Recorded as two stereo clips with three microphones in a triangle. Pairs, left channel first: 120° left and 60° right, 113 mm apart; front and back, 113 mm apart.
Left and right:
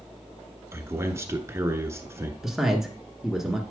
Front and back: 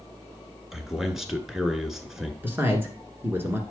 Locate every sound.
0.7 s a man speaking: 95° right, 1.3 m
2.4 s a man speaking: 145° right, 1.7 m